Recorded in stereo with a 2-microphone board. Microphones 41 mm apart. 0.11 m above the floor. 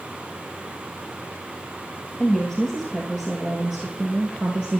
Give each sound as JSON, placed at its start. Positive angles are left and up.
{"t": 2.2, "sound": "a woman speaking", "side_deg": 15, "distance_m": 2.5}